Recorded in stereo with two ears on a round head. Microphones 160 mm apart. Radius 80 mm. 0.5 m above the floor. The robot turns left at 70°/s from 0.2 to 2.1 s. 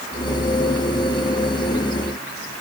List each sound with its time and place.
Only background noise.